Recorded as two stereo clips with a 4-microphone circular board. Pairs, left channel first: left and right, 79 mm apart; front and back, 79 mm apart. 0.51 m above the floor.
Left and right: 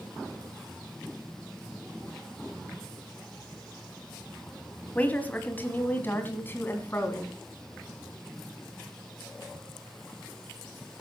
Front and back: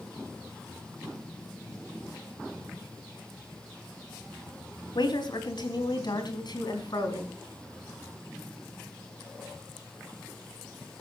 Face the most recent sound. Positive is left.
turn(degrees=30)